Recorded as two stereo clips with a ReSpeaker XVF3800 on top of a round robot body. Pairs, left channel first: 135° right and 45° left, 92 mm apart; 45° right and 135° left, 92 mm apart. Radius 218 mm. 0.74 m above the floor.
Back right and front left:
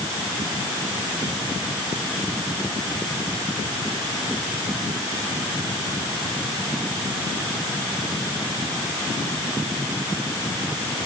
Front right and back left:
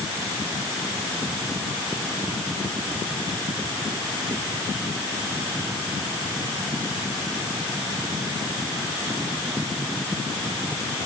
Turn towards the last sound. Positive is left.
No sound to turn to.